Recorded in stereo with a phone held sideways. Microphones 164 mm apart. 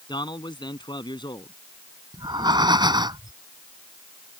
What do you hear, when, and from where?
0.1 s a man speaking: 30° left (ahead or behind)
2.1 s breathing: 25° right (ahead or behind)